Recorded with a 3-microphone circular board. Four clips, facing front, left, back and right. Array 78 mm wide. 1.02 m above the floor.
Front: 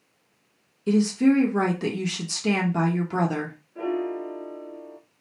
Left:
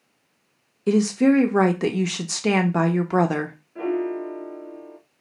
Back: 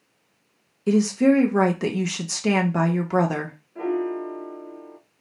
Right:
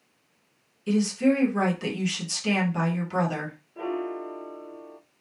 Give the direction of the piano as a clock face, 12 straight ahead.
8 o'clock.